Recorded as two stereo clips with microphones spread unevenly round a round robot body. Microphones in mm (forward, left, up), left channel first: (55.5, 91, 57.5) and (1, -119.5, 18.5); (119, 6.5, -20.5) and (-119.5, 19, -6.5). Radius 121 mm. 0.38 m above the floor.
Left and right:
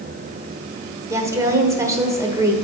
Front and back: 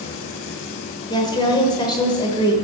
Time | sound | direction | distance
1.1 | a woman speaking | 55° right | 1.2 m